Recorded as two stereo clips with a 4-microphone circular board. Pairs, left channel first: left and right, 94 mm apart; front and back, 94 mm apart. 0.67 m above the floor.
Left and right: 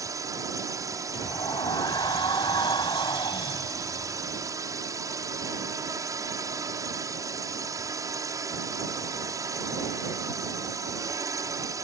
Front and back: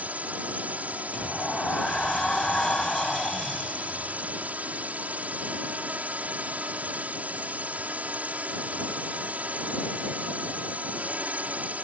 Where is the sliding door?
80° left.